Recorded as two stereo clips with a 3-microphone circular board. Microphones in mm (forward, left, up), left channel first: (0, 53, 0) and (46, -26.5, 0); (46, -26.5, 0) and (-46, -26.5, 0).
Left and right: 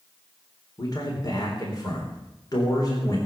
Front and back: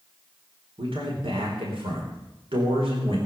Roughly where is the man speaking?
Behind.